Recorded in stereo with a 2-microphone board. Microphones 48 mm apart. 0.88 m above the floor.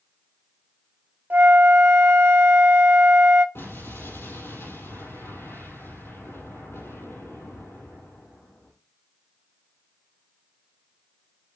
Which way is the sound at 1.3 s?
45° right (ahead or behind).